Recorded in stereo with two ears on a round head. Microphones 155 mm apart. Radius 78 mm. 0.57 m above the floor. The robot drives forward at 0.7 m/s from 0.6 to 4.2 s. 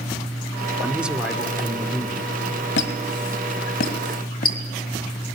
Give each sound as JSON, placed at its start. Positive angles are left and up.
{"t": 0.8, "sound": "a man speaking", "side_deg": -5, "distance_m": 1.7}
{"t": 2.8, "sound": "a squeak", "side_deg": 80, "distance_m": 2.0}